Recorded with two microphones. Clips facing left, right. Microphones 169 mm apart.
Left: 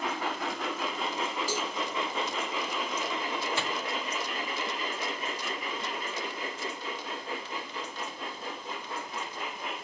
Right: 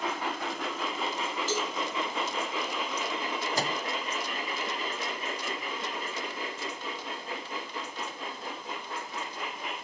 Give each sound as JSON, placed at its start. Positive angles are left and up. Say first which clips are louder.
{"t": 1.5, "sound": "a cowbell", "louder": "right 2 dB", "side_deg": 10, "distance_m": 3.5}
{"t": 3.6, "sound": "a microwave", "louder": "right 2 dB", "side_deg": -35, "distance_m": 0.5}